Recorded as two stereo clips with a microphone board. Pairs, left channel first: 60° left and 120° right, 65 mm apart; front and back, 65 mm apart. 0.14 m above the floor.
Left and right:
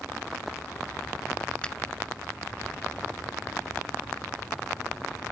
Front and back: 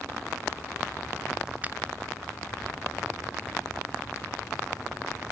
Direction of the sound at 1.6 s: 125° left.